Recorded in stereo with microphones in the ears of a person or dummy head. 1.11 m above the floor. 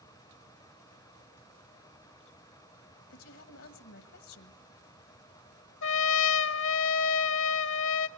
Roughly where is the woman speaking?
Left.